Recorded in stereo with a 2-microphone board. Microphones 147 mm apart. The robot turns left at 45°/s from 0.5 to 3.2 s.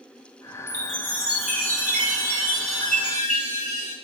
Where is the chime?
165° left, 3 m; by 4.0 s 50° left, 3 m.